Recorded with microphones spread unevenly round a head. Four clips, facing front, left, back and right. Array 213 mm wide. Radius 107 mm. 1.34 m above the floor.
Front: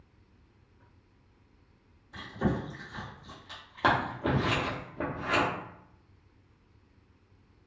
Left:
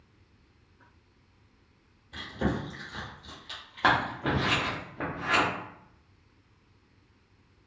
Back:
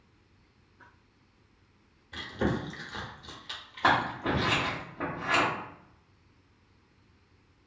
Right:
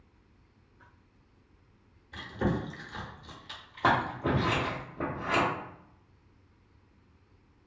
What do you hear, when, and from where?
2.1 s chewing: 175° left, 0.9 m
3.8 s scissors: 20° left, 0.9 m